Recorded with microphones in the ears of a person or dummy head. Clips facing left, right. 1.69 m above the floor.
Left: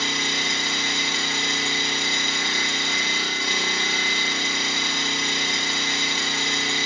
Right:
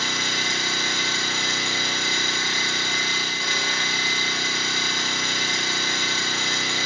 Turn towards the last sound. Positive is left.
turn(degrees=20)  # may be behind; listen again after turning